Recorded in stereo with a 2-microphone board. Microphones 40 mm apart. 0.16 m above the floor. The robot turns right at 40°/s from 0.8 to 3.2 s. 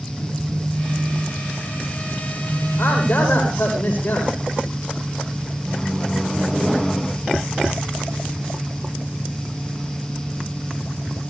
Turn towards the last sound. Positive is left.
turn(degrees=15)  # may be behind; listen again after turning